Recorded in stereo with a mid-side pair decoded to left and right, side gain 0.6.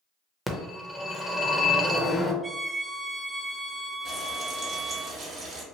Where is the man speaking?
No man speaking in this recording.